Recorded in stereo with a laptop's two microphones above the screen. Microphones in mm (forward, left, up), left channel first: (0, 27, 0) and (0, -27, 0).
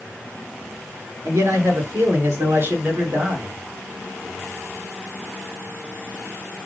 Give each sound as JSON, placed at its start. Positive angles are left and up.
{"t": 1.2, "sound": "a man speaking", "side_deg": -65, "distance_m": 3.5}